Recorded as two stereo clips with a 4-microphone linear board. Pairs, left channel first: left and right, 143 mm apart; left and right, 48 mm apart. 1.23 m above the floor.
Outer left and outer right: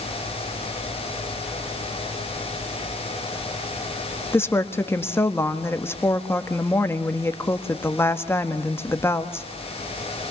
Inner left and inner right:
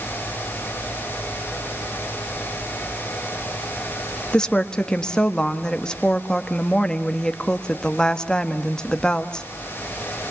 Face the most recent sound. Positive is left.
turn(degrees=15)  # may be behind; listen again after turning